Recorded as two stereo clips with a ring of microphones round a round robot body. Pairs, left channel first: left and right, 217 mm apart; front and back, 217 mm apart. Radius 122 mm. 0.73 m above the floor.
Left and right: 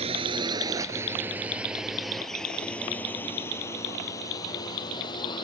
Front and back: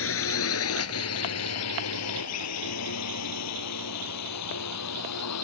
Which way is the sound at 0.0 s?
20° right.